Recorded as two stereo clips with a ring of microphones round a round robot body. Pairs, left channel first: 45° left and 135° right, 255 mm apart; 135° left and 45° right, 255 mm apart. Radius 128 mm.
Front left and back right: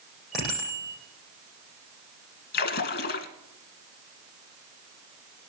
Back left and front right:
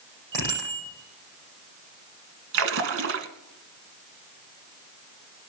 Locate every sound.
0.3 s a bicycle bell: 45° right, 10 m
2.5 s a splash: 5° right, 1.3 m